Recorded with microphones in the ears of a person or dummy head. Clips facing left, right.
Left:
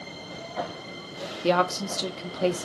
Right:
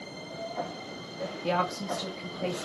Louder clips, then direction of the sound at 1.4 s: Left 7 dB; 65° left (ahead or behind).